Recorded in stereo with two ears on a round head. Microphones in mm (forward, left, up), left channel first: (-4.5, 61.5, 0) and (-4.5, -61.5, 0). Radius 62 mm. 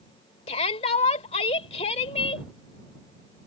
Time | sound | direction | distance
0.5 | a shout | 45° left (ahead or behind) | ?